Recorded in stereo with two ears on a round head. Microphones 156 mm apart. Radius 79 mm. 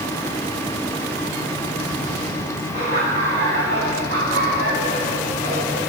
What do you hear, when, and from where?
2.7 s laughter: 40° right (ahead or behind), 2 m; by 5.8 s 80° right, 4.5 m